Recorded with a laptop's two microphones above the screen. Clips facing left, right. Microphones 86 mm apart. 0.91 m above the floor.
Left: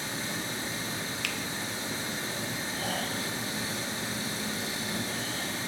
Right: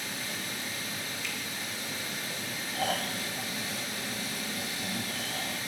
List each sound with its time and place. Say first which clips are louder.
0.0 s running water: left 3 dB; 30° left (ahead or behind), 0.9 m
1.2 s a finger snap: left 3 dB; 70° left (ahead or behind), 0.6 m
2.8 s snoring: right 4 dB; 70° right (ahead or behind), 2 m